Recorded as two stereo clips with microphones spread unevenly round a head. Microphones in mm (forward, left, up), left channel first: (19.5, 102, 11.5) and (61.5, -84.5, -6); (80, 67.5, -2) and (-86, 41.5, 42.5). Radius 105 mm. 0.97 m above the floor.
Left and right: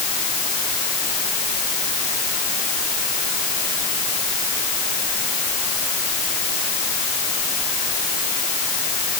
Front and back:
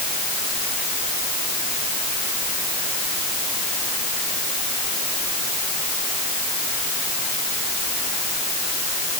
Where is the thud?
I don't hear a thud.